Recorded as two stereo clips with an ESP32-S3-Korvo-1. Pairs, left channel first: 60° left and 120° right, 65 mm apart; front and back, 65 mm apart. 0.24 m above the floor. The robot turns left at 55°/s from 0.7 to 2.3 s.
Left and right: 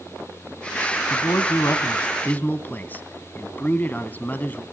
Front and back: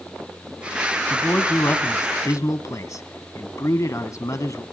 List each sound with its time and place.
1.1 s a man speaking: 70° left, 1.7 m; by 4.6 s 5° left, 1.7 m